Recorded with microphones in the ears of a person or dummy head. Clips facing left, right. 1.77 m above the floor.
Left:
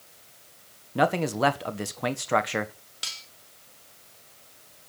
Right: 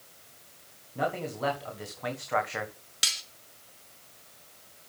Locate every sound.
0.9 s a man speaking: 75° left (ahead or behind), 1.7 m; by 2.7 s 40° left (ahead or behind), 1.5 m
3.0 s cutlery clinking: 30° right (ahead or behind), 1.4 m